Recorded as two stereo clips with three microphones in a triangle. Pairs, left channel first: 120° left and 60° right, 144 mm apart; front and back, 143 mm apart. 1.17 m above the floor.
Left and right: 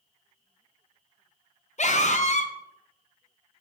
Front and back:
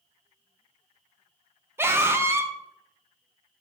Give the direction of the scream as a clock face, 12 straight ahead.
8 o'clock.